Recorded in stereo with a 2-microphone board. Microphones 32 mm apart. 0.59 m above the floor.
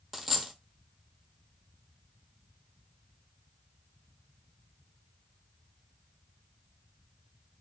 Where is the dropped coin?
5° right (ahead or behind), 0.7 m.